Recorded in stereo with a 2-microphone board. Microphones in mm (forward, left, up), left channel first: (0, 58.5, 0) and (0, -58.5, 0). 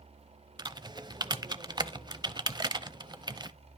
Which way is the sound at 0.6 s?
35° right (ahead or behind).